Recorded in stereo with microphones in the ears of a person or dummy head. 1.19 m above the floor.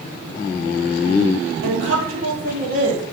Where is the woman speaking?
70° right (ahead or behind), 1.6 m.